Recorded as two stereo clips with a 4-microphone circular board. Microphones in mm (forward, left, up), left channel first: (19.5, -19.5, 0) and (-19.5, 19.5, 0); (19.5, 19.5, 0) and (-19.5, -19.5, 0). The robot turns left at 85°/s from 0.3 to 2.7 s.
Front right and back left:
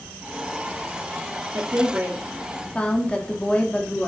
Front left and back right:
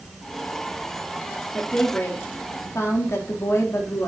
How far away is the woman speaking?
About 1.3 m.